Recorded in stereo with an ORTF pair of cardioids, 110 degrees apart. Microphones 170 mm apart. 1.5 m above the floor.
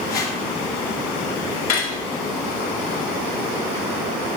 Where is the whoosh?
70° left, 3.5 m.